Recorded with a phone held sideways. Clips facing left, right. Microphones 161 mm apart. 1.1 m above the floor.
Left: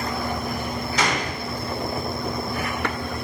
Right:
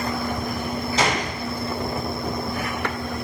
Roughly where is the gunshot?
Right.